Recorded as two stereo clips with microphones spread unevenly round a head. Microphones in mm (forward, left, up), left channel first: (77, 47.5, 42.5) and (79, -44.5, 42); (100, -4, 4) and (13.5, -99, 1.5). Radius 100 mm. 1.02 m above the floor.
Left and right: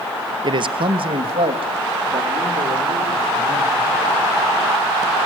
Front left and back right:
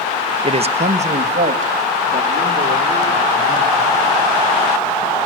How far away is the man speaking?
About 0.8 m.